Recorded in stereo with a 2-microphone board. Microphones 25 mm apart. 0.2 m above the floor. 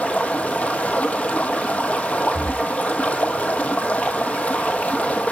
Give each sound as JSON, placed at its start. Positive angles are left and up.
{"t": 0.0, "sound": "running water", "side_deg": 85, "distance_m": 1.0}
{"t": 2.3, "sound": "breathing", "side_deg": 30, "distance_m": 5.5}